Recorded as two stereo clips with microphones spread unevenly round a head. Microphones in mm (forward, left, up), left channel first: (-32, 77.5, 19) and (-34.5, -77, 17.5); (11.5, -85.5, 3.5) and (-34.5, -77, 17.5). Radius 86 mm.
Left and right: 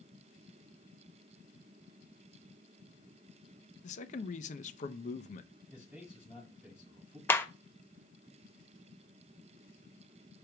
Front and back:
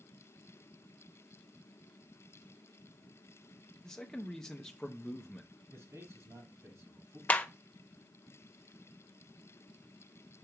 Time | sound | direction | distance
3.8 | a man speaking | 55° left | 0.6 m
5.7 | a man speaking | 175° right | 5.5 m
7.3 | a clap | 15° left | 0.5 m